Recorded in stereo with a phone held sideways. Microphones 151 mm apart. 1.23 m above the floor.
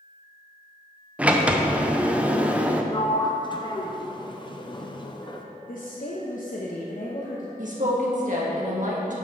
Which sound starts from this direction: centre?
A sliding door, at 1.2 s.